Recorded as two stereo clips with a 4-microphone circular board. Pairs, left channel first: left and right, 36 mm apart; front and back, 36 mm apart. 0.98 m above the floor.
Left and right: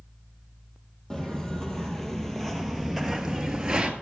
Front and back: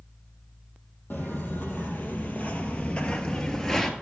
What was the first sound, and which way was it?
Footsteps, 10° left.